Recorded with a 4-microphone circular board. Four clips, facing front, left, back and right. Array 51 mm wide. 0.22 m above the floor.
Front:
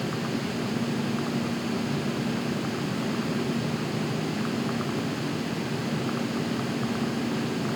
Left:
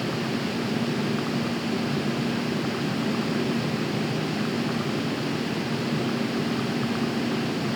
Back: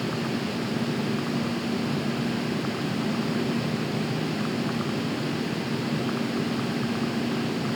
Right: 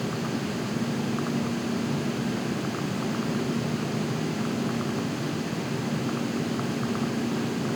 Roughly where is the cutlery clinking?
No cutlery clinking in this recording.